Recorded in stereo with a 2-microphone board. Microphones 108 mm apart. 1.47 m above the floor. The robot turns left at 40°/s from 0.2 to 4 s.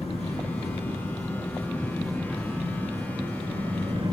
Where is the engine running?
75° left, 9 m; by 4.1 s 80° right, 9 m.